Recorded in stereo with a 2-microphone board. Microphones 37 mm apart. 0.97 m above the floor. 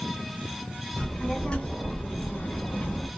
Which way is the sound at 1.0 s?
20° left (ahead or behind).